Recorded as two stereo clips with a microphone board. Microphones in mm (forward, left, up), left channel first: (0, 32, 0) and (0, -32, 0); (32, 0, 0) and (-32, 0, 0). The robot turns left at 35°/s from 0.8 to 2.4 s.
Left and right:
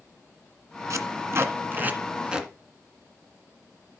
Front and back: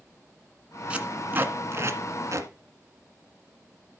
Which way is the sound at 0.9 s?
115° right.